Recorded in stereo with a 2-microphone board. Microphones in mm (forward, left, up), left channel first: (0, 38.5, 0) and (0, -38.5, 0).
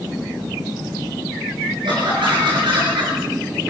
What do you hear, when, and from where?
1.8 s laughter: 75° right (ahead or behind), 5 m